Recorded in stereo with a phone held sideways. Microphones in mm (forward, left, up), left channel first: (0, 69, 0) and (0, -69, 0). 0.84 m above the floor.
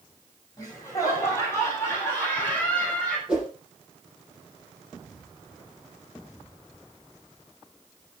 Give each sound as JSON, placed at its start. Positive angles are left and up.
{"t": 0.6, "sound": "laughter", "side_deg": 25, "distance_m": 8.0}
{"t": 3.3, "sound": "a whoosh", "side_deg": -5, "distance_m": 6.0}